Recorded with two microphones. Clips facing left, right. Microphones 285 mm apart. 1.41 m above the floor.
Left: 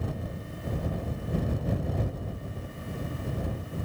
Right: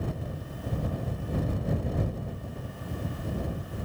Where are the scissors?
I don't hear scissors.